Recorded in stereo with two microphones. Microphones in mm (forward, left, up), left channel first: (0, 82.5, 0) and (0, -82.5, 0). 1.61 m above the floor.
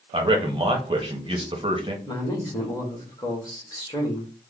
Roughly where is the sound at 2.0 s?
Left.